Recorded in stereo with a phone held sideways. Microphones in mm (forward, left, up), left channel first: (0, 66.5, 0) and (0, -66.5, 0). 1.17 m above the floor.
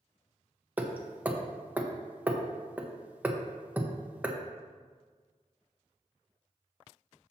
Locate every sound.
0.8 s hammering: 15° right (ahead or behind), 0.9 m